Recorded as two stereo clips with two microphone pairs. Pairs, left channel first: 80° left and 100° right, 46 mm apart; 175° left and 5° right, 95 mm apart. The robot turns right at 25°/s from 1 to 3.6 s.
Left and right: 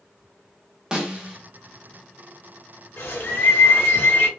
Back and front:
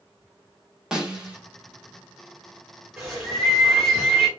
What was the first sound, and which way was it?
A snare drum, 70° right.